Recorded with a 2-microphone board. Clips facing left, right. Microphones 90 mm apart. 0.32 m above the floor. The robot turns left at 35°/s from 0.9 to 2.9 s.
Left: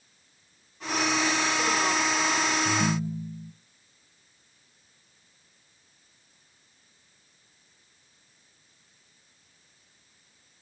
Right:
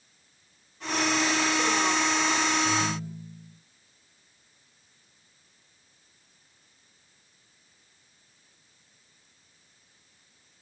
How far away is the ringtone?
About 3.5 m.